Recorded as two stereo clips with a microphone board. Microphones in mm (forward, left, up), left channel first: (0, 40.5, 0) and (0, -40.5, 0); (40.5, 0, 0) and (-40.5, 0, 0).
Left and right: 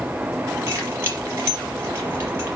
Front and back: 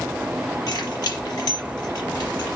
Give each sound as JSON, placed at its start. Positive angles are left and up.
{"t": 0.7, "sound": "keys jangling", "azimuth_deg": -30, "distance_m": 5.0}